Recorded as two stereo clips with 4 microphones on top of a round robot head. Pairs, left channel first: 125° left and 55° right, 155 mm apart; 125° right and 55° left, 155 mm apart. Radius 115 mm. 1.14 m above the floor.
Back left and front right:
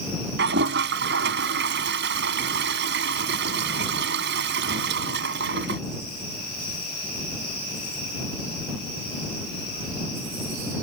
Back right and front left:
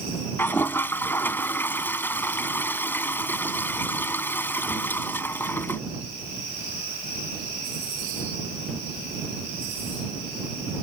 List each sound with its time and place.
0.4 s a toilet flushing: 50° right